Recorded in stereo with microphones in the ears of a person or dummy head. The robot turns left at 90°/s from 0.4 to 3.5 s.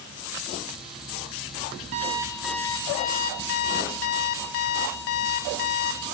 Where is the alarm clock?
130° right, 0.8 m; by 6.0 s 90° left, 0.8 m.